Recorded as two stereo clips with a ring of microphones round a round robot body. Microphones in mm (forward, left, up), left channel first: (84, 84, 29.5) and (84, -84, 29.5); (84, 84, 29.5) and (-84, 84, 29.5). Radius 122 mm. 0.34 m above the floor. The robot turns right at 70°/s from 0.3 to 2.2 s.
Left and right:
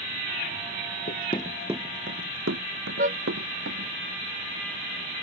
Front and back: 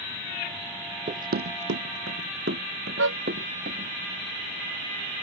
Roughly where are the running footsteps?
Behind left.